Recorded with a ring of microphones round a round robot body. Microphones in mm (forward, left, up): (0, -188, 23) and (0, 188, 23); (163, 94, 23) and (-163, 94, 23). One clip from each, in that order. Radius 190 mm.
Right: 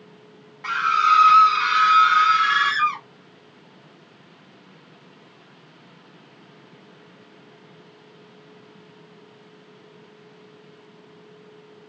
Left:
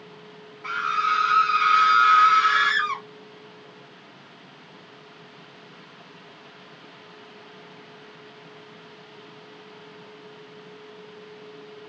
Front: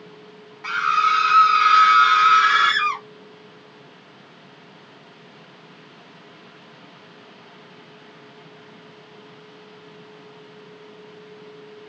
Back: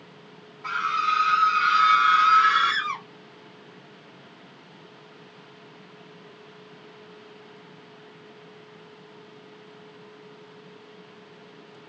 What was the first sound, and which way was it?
A scream, 25° right.